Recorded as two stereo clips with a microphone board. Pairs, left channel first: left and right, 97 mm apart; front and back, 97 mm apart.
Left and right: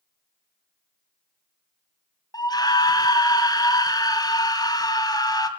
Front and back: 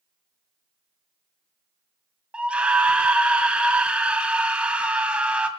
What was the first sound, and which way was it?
A scream, 105° left.